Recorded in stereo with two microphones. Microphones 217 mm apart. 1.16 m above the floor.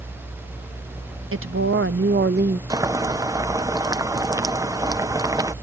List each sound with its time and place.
1.3 s a woman speaking: 75° right (ahead or behind); by 2.6 s 40° right (ahead or behind)
2.7 s boiling: 15° right (ahead or behind)